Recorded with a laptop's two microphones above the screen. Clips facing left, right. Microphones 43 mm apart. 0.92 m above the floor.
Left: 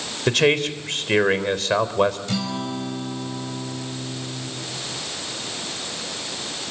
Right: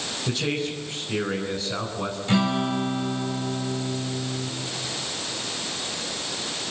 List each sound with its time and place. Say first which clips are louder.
0.3 s a man speaking: left 9 dB; 85° left, 3.5 m
2.3 s a guitar: right 4 dB; 30° right (ahead or behind), 2 m